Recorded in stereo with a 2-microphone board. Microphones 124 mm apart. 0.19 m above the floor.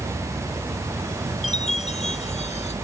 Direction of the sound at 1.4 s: 65° left (ahead or behind).